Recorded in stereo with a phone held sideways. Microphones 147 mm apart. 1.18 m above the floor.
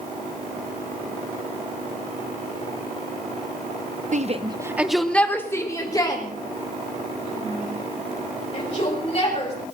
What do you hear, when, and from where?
4.1 s a shout: 55° right (ahead or behind), 0.9 m; by 9.6 s 40° left (ahead or behind), 7 m